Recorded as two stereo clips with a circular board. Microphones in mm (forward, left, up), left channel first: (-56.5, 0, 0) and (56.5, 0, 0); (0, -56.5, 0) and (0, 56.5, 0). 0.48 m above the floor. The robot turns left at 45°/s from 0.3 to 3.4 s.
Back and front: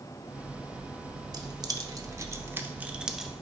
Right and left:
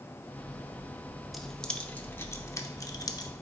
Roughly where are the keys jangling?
Ahead.